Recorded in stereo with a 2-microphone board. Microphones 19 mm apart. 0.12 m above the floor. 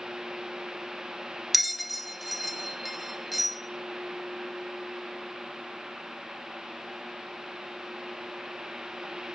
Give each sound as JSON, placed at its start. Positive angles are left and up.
{"t": 1.5, "sound": "a bell", "side_deg": -5, "distance_m": 0.6}